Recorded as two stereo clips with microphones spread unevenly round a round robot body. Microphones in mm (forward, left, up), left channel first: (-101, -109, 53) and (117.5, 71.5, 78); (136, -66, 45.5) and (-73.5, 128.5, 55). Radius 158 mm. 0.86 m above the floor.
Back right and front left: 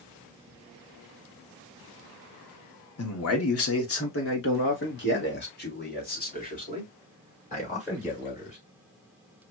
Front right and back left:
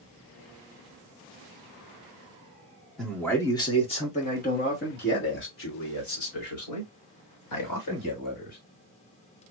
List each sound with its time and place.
3.0 s a man speaking: 130° right, 1.6 m; by 8.6 s 75° right, 4 m